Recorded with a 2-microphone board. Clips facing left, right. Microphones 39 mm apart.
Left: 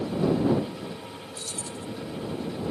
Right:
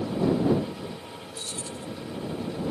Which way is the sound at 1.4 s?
35° right (ahead or behind).